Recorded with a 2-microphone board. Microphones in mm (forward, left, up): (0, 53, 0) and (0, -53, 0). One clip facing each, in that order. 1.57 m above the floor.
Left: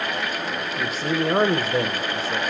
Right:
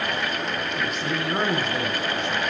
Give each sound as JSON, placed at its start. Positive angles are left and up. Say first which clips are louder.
{"t": 0.8, "sound": "a man speaking", "louder": "left 6 dB", "side_deg": 35, "distance_m": 1.0}